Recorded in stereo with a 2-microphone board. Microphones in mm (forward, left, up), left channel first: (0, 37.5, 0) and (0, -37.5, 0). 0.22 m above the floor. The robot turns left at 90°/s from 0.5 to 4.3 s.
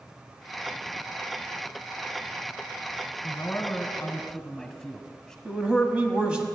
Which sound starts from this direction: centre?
A man speaking, at 5.5 s.